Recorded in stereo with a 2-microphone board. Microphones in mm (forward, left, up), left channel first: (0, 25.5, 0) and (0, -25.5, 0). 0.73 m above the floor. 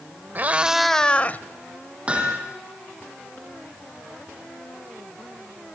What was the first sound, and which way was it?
A cat meowing, 40° right (ahead or behind).